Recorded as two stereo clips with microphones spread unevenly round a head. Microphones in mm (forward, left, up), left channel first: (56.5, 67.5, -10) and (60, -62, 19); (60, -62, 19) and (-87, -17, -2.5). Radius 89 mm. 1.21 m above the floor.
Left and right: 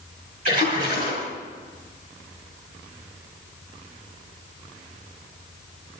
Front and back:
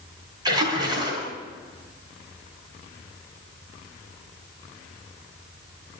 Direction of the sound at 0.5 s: 130° right.